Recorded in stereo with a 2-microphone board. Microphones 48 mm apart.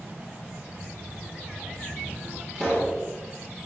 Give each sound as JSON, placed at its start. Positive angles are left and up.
{"t": 0.7, "sound": "a child speaking", "side_deg": -45, "distance_m": 4.5}
{"t": 2.5, "sound": "a pop", "side_deg": -25, "distance_m": 7.0}